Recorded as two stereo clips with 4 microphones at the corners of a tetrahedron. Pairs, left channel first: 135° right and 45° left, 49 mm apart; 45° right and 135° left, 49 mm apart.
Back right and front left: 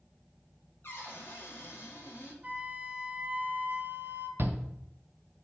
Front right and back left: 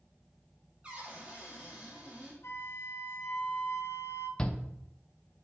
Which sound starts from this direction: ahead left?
A shout, at 4.4 s.